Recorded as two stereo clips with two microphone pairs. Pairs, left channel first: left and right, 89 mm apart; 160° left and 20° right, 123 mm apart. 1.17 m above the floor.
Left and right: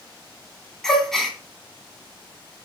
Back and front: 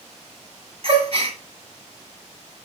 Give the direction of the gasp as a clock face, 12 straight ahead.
12 o'clock.